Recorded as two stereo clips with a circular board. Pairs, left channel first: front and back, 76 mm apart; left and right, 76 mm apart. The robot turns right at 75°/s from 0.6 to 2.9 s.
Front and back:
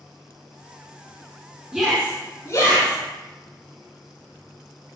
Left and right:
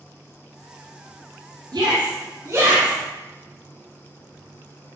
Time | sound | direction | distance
1.7 | a shout | 100° right | 2 m